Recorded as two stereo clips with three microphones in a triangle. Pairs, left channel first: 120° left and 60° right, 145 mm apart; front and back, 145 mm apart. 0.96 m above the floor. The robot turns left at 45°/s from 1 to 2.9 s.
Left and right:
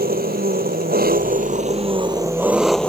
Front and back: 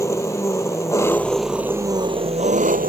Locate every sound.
0.0 s an engine running: 70° right; by 2.9 s 155° right